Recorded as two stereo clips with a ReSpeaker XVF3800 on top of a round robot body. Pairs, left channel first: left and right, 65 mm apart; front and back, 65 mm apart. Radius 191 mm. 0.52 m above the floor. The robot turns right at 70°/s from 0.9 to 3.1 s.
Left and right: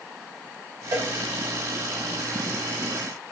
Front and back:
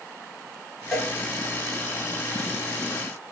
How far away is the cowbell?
About 3 m.